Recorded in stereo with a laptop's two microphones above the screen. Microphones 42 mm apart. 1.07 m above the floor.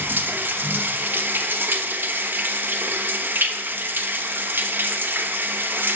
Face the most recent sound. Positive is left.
turn(degrees=-55)  # may be behind; listen again after turning